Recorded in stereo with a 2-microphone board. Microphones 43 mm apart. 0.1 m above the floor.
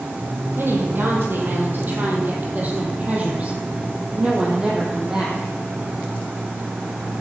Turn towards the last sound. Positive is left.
turn(degrees=-15)  # may be behind; listen again after turning